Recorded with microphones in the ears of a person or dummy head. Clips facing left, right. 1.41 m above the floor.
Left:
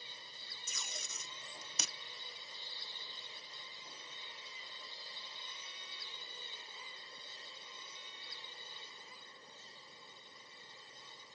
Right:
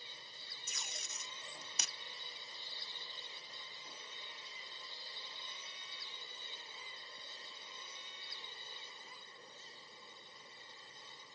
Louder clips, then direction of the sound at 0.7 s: Left 2 dB; 80° left.